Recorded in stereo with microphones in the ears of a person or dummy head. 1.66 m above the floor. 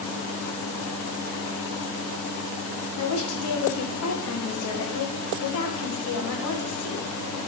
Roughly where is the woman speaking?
Left.